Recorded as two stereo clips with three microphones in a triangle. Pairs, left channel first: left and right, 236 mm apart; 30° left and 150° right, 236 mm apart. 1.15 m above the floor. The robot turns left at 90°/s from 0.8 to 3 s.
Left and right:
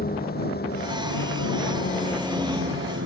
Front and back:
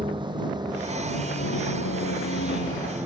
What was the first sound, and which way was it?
A vehicle, 140° left.